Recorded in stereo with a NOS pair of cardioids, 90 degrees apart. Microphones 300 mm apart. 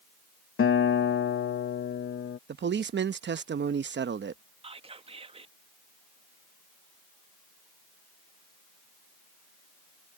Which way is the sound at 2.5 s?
35° right.